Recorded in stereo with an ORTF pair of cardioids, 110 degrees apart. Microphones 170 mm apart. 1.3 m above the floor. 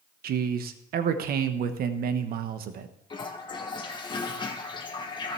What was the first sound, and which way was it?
A man speaking, 60° right.